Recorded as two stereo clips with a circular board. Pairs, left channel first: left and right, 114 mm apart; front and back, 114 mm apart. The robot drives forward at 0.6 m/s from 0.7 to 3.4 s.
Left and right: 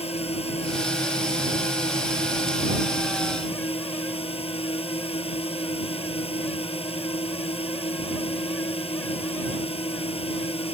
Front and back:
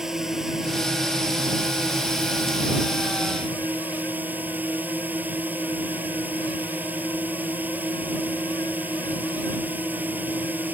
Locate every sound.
0.0 s a drone: 95° left; by 10.7 s 110° left